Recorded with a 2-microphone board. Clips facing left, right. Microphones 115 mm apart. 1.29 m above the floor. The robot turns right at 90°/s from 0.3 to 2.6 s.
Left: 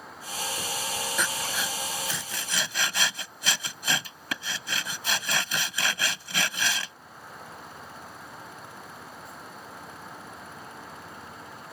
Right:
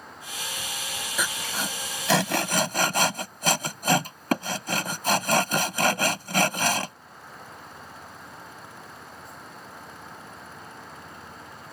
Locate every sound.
1.2 s sawing: 5° right (ahead or behind); by 7.0 s 45° right (ahead or behind)